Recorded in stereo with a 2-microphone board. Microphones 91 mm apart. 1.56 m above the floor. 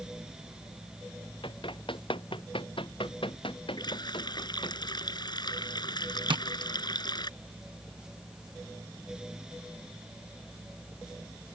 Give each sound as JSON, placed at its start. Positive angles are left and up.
{"t": 1.4, "sound": "running footsteps", "side_deg": 70}
{"t": 3.8, "sound": "a running tap", "side_deg": 55}
{"t": 6.3, "sound": "tapping", "side_deg": -65}